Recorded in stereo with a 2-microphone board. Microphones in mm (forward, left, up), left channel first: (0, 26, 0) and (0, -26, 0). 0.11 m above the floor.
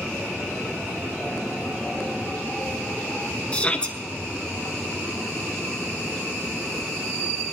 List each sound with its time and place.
3.5 s a shout: 20° left (ahead or behind), 1.4 m